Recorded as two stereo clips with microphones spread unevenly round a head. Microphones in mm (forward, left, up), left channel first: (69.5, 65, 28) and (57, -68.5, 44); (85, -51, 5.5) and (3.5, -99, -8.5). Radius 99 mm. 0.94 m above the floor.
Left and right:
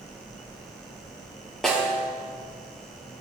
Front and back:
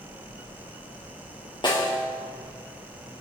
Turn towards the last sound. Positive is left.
turn(degrees=-5)